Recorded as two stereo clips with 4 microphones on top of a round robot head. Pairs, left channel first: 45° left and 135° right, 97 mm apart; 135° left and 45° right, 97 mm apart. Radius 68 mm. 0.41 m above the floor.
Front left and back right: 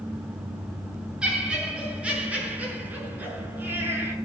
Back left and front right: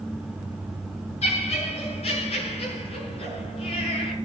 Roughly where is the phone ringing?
I don't hear a phone ringing.